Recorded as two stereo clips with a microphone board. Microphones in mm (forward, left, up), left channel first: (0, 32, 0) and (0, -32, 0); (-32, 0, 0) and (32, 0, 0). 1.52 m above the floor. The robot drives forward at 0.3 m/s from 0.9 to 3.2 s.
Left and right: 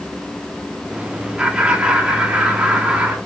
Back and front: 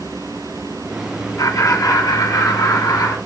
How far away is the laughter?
About 0.9 m.